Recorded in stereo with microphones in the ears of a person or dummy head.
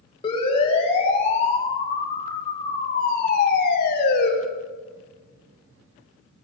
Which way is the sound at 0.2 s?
30° left (ahead or behind).